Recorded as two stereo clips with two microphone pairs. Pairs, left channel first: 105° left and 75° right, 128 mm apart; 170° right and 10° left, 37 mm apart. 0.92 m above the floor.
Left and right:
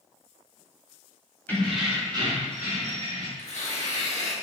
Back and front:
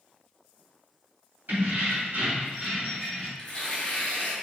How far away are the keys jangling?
About 1.3 m.